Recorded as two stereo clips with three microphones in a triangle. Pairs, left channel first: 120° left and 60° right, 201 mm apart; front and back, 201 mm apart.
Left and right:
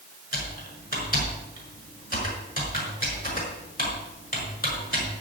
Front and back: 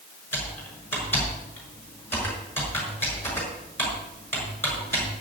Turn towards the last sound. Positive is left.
turn(degrees=80)